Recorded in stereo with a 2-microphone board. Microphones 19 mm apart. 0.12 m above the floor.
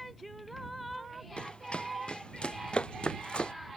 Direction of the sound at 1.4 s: 55° left (ahead or behind).